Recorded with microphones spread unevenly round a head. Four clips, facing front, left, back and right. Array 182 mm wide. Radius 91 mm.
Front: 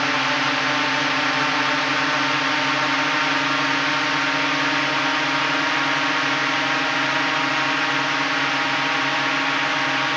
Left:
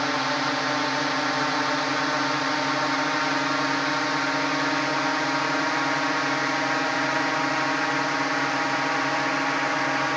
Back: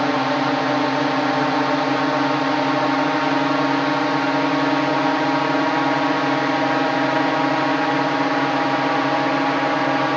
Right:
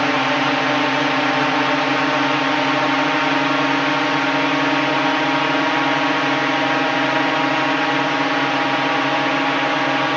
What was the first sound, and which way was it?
A drone, 140° right.